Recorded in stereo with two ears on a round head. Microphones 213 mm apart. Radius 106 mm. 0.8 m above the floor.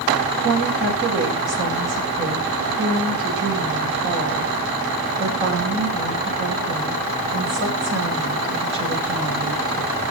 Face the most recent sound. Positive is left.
turn(degrees=-45)  # may be behind; listen again after turning